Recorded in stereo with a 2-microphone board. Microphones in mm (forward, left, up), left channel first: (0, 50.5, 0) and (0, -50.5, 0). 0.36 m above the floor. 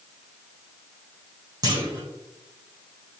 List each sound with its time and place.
1.6 s a clunk: 40° right (ahead or behind), 1.2 m